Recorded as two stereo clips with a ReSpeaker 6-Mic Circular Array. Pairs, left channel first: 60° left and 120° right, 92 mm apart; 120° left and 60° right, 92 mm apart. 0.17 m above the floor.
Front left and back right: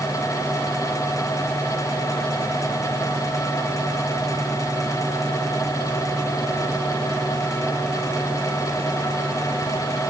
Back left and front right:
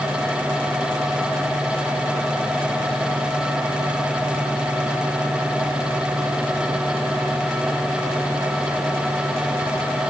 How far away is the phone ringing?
No phone ringing in this recording.